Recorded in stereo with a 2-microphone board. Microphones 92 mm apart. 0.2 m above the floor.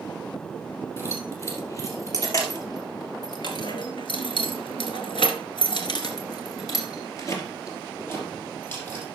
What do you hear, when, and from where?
1.0 s keys jangling: 30° left (ahead or behind), 4 m; by 9.1 s 20° left (ahead or behind), 4 m